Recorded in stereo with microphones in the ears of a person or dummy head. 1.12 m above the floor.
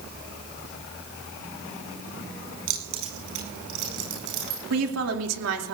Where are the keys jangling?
80° right, 9.5 m; by 4.6 s 70° right (ahead or behind), 9 m.